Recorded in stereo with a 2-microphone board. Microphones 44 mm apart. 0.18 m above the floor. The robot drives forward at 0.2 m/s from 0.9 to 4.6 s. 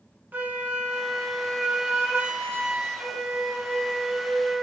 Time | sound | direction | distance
0.3 | a flute | 40° right (ahead or behind) | 1.4 m